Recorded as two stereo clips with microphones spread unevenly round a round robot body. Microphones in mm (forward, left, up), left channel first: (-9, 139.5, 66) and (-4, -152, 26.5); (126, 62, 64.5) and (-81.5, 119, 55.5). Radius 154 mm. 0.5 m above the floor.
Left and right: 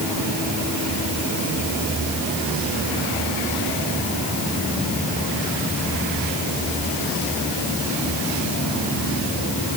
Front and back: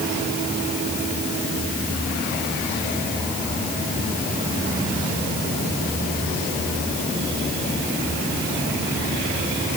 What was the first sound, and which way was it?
Only background noise.